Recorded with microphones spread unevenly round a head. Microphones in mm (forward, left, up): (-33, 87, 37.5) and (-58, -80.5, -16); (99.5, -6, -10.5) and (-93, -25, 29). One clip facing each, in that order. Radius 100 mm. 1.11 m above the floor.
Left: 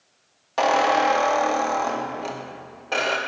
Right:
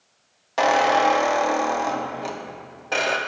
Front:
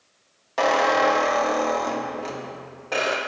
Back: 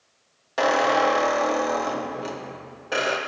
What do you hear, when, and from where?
0.6 s a squeak: 140° left, 0.6 m